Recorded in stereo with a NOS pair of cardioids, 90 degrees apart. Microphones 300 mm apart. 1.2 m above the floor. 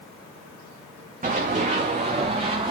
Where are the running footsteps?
25° right, 5 m; by 2.7 s 20° right, 5.5 m.